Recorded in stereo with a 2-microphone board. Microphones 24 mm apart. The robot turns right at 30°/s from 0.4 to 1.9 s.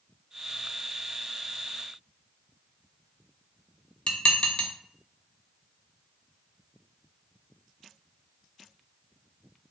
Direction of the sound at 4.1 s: 45° left (ahead or behind).